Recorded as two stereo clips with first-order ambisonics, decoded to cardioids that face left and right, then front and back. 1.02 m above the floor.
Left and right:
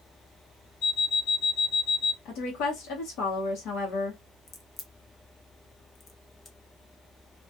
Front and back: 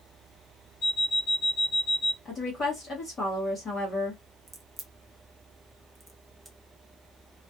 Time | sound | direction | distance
0.8 | an alarm clock | 55° left | 1.1 m
2.2 | a woman speaking | 65° left | 1.0 m
4.5 | a crack | 115° left | 0.5 m